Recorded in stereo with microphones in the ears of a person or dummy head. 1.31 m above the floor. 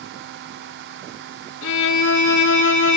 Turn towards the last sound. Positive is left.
turn(degrees=80)